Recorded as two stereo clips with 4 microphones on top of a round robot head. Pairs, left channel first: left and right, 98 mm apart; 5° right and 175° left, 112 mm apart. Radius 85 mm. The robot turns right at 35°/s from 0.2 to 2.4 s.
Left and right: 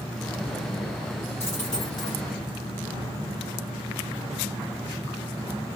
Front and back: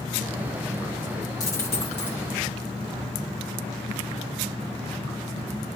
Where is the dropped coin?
30° left, 0.7 m; by 2.2 s 55° left, 0.7 m.